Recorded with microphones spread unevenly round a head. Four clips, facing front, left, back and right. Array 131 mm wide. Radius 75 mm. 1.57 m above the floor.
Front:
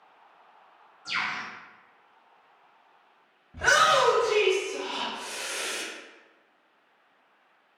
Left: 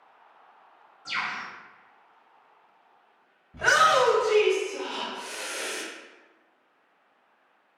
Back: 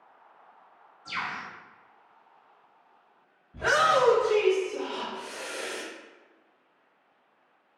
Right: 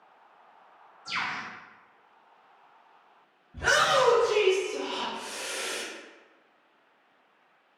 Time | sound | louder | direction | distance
1.1 | a bird | left 1 dB, front 2 dB | 60° left | 1.8 m
3.5 | a shout | left 3 dB, front 1 dB | 50° left | 1.9 m